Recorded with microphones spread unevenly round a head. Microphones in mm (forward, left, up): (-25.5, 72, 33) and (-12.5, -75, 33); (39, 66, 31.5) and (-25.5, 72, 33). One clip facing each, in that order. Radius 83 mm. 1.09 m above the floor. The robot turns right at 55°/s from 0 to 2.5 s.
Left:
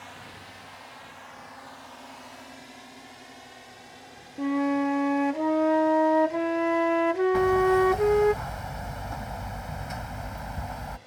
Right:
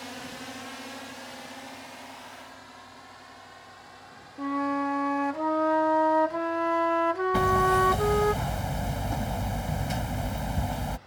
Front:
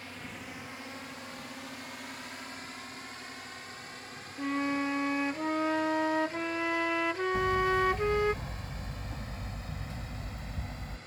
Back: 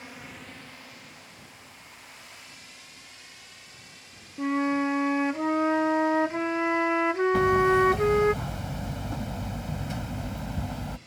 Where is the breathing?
I don't hear breathing.